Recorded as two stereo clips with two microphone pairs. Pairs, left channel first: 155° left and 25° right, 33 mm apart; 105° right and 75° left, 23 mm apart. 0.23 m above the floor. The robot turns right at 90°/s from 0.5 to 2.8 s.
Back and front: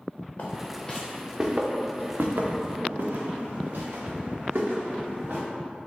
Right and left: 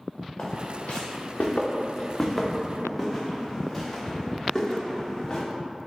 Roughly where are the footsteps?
Behind right.